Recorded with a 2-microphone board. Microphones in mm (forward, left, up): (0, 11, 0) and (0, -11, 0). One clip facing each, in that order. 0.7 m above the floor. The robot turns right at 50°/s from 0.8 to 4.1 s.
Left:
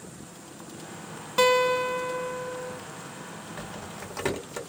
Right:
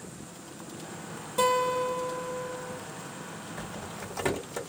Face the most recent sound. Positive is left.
turn(degrees=30)  # may be behind; listen again after turning